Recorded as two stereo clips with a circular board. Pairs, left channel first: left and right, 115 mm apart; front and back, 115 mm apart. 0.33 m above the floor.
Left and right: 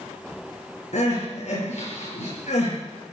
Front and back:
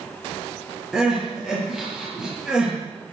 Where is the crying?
95° left, 7 m.